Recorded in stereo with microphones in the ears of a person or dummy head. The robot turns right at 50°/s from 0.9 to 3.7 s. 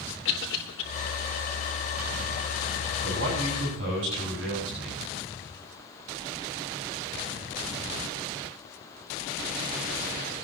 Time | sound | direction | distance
0.2 | a cough | 70° left (ahead or behind) | 4.5 m
3.0 | a man speaking | 115° right | 9.5 m